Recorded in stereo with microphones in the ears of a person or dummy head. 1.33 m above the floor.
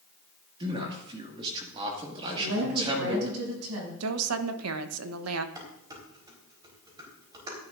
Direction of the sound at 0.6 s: 30° right (ahead or behind).